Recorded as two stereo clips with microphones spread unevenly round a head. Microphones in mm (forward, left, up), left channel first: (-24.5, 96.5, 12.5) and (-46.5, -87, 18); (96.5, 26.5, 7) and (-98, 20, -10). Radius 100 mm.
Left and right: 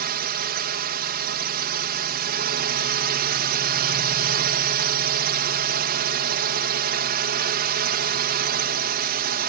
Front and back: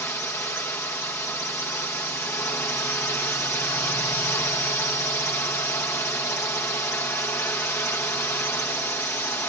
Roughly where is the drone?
Right.